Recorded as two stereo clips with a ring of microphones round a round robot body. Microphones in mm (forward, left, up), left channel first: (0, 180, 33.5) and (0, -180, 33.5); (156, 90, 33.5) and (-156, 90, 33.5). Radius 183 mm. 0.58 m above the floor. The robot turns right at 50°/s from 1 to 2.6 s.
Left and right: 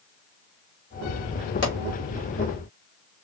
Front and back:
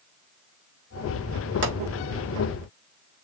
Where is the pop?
140° left, 3.5 m; by 1.8 s 145° left, 3.5 m.